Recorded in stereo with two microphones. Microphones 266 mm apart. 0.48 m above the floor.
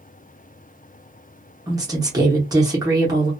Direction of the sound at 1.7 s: 15° right (ahead or behind).